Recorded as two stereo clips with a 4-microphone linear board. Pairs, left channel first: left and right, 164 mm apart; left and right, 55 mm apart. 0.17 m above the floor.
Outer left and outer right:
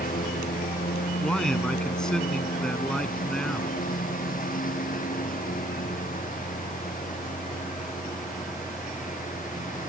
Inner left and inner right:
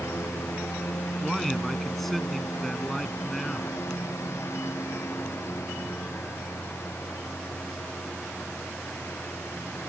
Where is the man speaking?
5° left (ahead or behind).